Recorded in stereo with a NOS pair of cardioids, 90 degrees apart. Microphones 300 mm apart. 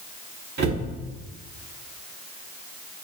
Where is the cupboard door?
35° right, 1.6 m.